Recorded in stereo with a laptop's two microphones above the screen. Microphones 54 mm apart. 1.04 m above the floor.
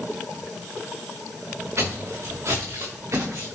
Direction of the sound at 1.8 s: 50° right (ahead or behind).